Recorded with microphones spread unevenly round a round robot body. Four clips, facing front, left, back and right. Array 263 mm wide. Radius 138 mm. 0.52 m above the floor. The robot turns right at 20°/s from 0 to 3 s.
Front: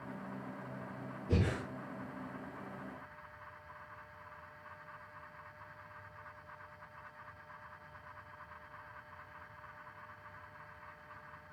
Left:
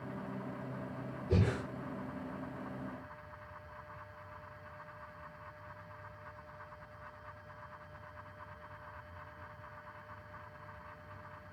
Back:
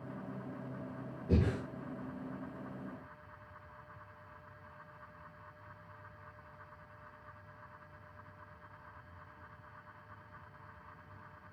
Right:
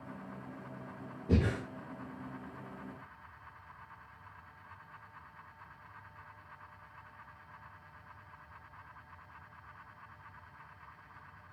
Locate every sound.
1.3 s breathing: 120° right, 8 m; by 1.6 s 115° right, 8 m